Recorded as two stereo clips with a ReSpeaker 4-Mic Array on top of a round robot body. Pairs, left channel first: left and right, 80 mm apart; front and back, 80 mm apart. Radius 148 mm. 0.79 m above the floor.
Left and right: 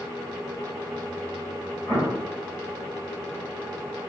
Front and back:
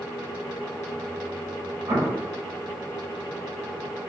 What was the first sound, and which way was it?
An explosion, 160° left.